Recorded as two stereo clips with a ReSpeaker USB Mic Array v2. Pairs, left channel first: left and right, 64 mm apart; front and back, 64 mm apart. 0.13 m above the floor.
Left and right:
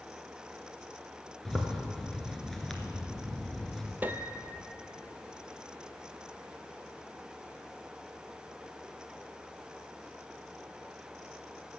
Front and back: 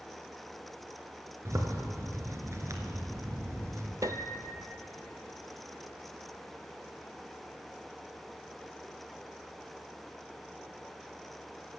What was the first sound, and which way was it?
A zipper, 175° left.